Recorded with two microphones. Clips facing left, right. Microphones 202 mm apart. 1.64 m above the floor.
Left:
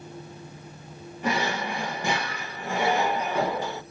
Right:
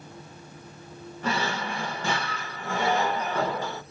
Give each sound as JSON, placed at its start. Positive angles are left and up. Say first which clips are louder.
{"t": 1.2, "sound": "a drawer", "louder": "left 2 dB", "side_deg": 15, "distance_m": 0.8}